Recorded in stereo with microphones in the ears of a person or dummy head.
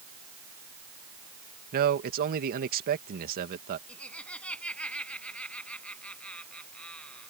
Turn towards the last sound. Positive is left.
turn(degrees=5)  # may be behind; listen again after turning